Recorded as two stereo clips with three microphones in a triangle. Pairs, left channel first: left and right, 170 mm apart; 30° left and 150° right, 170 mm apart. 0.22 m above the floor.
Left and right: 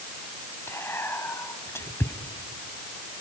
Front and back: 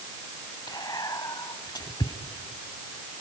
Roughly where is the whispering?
Ahead left.